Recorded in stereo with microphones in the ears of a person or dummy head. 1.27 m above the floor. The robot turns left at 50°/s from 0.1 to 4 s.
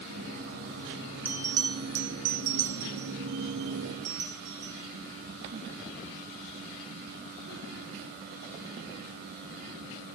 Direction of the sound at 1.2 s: 5° right (ahead or behind).